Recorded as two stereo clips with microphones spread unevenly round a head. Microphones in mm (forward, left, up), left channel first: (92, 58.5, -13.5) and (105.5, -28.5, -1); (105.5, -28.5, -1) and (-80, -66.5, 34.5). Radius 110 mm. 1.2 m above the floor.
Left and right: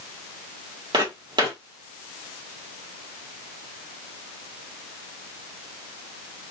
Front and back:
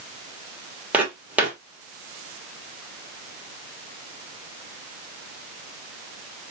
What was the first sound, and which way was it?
Footsteps, 95° right.